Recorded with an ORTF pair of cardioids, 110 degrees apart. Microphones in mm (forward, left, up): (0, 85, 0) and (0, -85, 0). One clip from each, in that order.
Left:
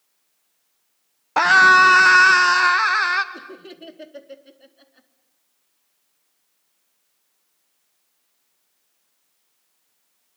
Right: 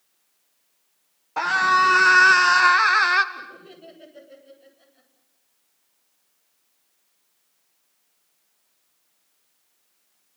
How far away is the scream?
About 1.2 m.